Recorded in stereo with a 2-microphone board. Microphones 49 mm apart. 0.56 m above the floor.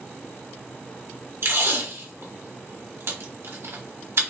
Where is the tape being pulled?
60° right (ahead or behind), 1.3 m.